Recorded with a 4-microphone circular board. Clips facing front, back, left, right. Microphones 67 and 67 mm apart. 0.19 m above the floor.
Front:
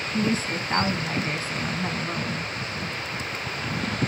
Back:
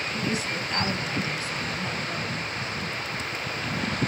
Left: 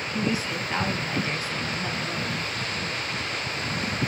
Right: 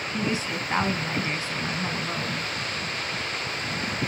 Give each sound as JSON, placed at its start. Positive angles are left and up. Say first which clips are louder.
{"t": 0.1, "sound": "a woman speaking", "louder": "front 6 dB, left 1 dB", "azimuth_deg": -35, "distance_m": 1.2}